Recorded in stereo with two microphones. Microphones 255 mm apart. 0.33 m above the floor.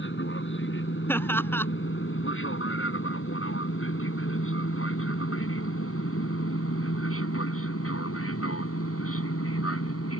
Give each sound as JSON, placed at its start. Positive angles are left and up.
{"t": 0.0, "sound": "an aircraft", "side_deg": 50}
{"t": 1.1, "sound": "laughter", "side_deg": 10}